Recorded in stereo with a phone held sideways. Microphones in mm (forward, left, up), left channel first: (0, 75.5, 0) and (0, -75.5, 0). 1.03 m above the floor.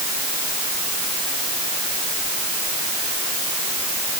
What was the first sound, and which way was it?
Only background noise.